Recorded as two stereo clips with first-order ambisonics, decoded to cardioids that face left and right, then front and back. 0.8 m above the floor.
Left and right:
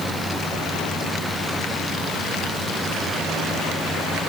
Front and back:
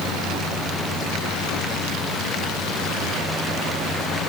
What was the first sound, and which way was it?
Only background noise.